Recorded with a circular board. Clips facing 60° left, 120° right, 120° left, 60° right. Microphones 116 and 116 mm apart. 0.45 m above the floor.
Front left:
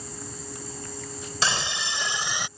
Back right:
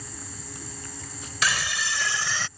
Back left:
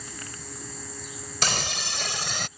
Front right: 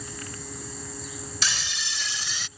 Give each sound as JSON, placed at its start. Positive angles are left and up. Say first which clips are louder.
{"t": 1.4, "sound": "a scream", "louder": "even, back left 7 dB", "azimuth_deg": 115}